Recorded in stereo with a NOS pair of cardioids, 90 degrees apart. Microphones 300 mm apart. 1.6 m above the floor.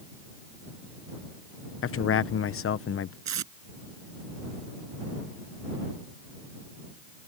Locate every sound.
1.8 s a man speaking: 45° left
3.2 s tape being pulled: 60° right